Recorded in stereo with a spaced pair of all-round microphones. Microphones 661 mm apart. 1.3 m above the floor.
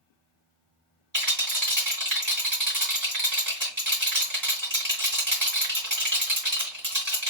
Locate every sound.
1.1 s a rattle: 30° right (ahead or behind), 3 m